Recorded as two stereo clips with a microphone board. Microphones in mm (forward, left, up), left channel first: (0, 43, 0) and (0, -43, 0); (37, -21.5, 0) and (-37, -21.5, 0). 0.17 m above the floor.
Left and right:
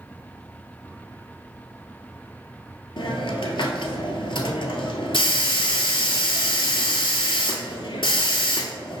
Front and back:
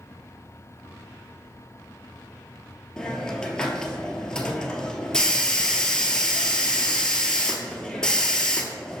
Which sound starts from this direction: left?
A hiss, at 3.0 s.